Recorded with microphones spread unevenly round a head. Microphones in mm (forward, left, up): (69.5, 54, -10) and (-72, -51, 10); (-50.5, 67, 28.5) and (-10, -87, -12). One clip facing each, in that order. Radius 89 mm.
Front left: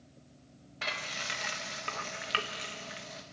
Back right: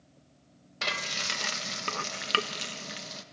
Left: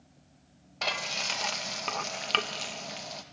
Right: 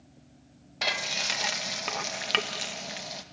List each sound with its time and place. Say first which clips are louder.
0.8 s frying: back right 4 dB, right 1 dB; 140° right, 0.9 m